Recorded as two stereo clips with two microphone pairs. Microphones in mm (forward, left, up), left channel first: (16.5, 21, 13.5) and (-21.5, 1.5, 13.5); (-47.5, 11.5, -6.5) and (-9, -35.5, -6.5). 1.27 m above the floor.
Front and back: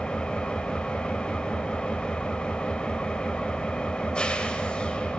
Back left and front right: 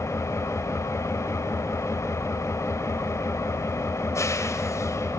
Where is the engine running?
95° left, 3.5 m.